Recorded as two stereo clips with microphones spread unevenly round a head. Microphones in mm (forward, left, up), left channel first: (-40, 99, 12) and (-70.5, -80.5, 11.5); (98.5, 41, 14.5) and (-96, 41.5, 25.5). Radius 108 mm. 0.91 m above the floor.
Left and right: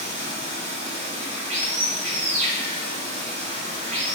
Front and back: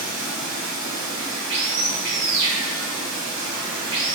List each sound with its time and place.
0.0 s running water: 150° right, 1.1 m